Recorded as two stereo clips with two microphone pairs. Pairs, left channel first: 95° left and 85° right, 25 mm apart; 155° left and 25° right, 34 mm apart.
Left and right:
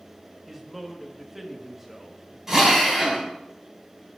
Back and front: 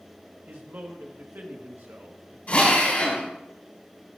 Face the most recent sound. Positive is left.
turn(degrees=-160)